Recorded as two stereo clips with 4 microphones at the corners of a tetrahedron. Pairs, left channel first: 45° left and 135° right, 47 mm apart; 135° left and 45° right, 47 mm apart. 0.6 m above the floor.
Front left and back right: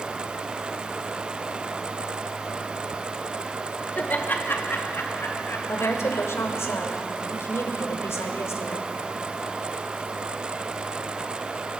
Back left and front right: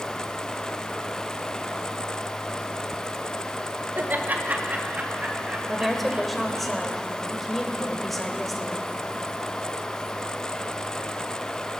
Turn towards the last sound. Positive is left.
turn(degrees=50)